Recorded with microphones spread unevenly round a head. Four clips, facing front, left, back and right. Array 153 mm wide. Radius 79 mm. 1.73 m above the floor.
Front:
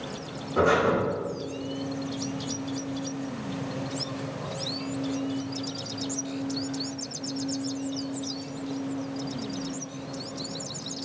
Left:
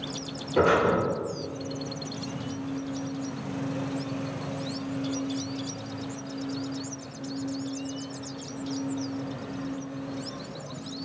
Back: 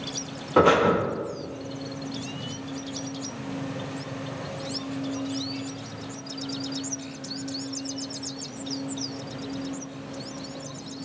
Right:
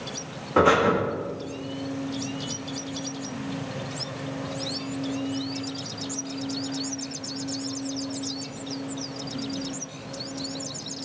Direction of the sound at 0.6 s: 160° right.